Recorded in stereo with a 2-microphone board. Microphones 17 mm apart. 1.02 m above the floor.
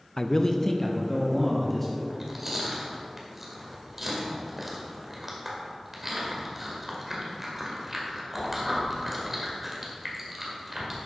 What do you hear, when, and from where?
0.2 s a man speaking: 45° left (ahead or behind), 0.5 m; by 2.0 s 15° left (ahead or behind), 2.5 m
2.1 s chewing: 15° right (ahead or behind), 1.7 m